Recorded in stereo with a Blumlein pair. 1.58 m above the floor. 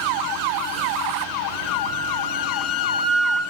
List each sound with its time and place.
1.7 s a flute: 20° left, 1.8 m